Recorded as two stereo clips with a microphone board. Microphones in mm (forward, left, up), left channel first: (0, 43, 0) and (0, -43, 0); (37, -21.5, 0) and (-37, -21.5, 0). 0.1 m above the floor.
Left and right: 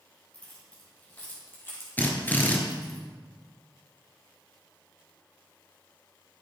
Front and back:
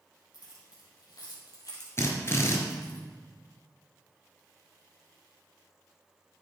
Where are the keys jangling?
15° left, 3 m; by 3.0 s 45° left, 1.8 m.